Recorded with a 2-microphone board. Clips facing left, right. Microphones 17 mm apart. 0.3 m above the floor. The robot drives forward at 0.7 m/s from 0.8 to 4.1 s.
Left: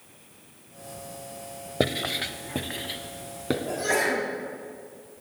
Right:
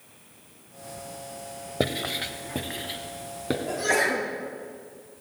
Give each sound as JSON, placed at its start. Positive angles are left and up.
{"t": 1.8, "sound": "writing", "side_deg": 10, "distance_m": 0.6}
{"t": 3.7, "sound": "a sneeze", "side_deg": -15, "distance_m": 4.5}